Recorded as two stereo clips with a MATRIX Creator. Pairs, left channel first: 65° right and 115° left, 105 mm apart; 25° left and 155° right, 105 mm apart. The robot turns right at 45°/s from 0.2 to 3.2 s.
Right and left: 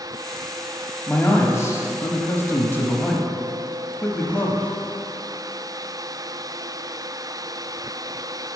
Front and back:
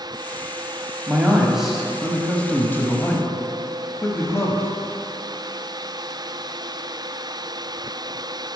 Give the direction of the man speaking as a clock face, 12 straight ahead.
3 o'clock.